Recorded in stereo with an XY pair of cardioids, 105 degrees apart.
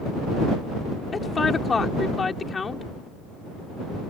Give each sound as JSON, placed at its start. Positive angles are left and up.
{"t": 1.1, "sound": "a woman speaking", "azimuth_deg": 30}